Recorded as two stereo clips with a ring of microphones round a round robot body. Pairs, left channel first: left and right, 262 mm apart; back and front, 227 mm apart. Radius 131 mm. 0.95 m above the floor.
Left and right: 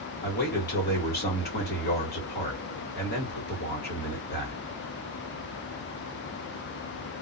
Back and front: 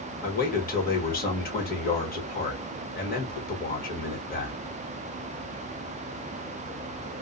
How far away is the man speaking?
About 1.4 m.